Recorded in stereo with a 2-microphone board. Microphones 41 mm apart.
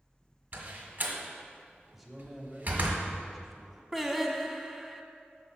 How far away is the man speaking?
About 1.0 m.